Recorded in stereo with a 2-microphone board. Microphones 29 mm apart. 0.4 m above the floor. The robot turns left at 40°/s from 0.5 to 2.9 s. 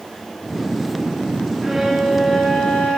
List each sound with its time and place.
1.6 s a violin: 170° right, 8 m; by 3.0 s 135° left, 8 m